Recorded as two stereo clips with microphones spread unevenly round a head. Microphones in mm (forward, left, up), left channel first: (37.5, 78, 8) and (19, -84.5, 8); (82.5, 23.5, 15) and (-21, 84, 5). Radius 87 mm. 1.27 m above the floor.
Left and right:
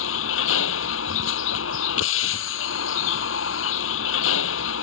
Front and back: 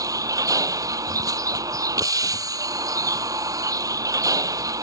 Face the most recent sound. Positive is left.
turn(degrees=90)